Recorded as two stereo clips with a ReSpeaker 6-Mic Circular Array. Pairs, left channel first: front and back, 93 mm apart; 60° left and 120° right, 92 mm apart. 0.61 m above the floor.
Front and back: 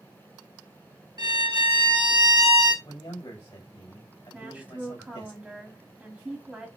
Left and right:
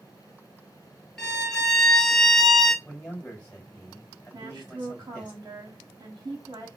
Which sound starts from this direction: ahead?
A man speaking, at 2.9 s.